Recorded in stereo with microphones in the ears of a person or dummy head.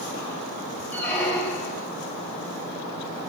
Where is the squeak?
10° left (ahead or behind), 1.0 m.